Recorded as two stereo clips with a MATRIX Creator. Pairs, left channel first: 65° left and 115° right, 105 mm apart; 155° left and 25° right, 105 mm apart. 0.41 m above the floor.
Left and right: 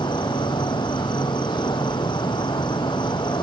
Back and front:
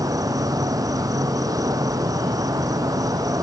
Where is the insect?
30° left.